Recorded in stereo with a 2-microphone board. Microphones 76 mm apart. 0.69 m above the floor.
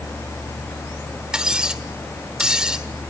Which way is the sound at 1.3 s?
10° right (ahead or behind).